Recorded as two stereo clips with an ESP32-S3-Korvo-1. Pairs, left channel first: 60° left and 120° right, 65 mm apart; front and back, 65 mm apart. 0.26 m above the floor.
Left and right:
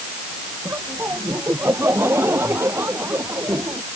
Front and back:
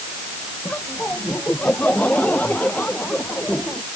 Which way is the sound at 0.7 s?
65° right.